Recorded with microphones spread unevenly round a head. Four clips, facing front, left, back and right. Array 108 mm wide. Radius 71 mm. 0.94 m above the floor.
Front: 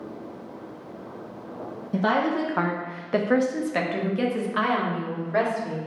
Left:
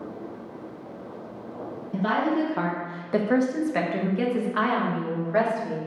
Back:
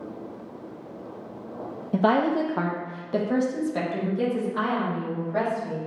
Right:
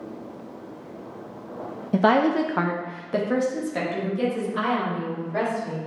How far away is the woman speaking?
About 0.7 m.